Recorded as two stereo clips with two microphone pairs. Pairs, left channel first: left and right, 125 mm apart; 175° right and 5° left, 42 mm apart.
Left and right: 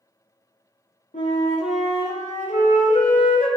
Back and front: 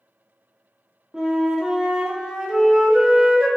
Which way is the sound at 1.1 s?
80° left.